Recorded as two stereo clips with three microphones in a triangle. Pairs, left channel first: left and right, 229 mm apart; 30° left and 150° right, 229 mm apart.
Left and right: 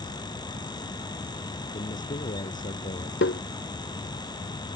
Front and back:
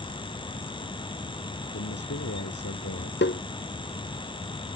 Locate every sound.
1.7 s a man speaking: 35° left
3.2 s tapping: 65° left